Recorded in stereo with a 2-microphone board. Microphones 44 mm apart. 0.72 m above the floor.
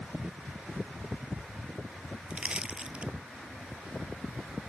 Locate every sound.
2.3 s crushing: 25° right (ahead or behind)